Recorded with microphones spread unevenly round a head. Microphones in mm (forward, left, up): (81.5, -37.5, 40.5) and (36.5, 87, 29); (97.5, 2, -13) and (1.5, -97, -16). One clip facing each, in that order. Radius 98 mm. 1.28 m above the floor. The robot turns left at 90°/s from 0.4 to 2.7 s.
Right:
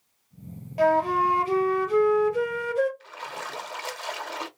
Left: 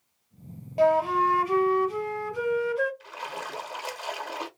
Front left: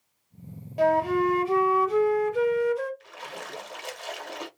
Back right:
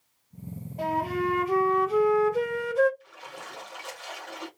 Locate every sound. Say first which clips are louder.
0.8 s a flute: even, front left 6 dB; 50° left, 0.8 m; by 2.9 s 120° right, 0.8 m
3.0 s a splash: left 1 dB, front left 4 dB; 35° left, 0.8 m